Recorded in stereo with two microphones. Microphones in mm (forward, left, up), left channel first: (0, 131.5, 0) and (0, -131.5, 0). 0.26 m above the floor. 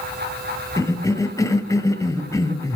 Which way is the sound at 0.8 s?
10° left (ahead or behind).